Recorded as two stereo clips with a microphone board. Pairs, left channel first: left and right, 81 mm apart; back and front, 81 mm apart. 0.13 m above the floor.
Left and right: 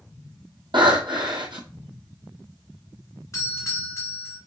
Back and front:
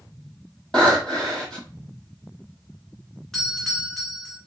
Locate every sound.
0.7 s breathing: 100° right, 1.8 m
3.3 s a doorbell: 95° left, 1.8 m